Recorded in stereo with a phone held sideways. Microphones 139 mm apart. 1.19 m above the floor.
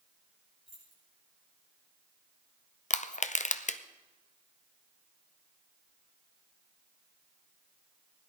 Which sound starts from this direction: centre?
Keys jangling, at 0.7 s.